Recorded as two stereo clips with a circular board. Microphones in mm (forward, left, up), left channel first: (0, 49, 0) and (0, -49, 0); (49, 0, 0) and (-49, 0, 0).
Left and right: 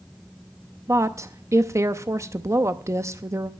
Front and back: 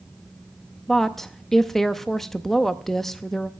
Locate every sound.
0.9 s a woman speaking: 85° right, 0.6 m